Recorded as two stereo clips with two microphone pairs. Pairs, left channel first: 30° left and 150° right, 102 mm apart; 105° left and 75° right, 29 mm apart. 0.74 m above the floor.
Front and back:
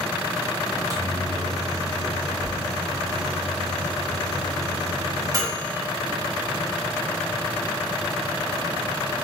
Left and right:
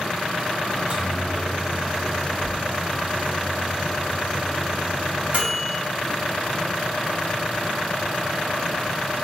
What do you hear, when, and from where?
0.7 s a microwave: 105° right, 0.6 m